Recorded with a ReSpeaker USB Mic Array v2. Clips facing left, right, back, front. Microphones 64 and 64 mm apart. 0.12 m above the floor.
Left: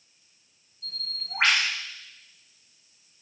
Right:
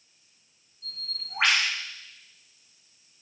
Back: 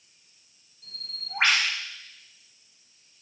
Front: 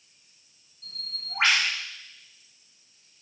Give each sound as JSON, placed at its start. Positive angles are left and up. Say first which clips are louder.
{"t": 0.8, "sound": "a bird", "louder": "left 2 dB, front 1 dB", "azimuth_deg": 125, "distance_m": 2.0}